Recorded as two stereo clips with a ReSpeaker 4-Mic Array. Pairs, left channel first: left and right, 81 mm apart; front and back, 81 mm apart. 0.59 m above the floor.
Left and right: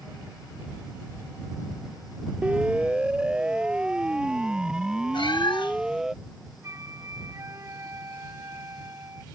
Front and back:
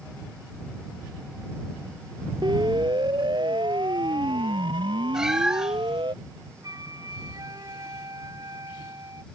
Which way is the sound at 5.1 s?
100° left.